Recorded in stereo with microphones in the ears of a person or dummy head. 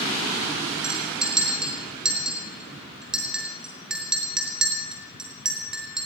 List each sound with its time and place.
0.8 s a clink: 5° left (ahead or behind), 2 m